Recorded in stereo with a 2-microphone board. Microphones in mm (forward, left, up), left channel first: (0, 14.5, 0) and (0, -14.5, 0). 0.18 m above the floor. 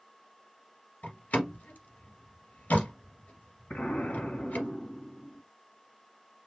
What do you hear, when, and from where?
1.0 s a door slam: 60° left (ahead or behind), 2 m
3.7 s an explosion: 45° left (ahead or behind), 1.8 m